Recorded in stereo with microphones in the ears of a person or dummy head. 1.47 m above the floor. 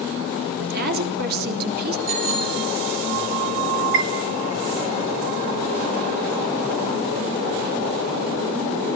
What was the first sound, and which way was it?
A woman speaking, 55° right (ahead or behind).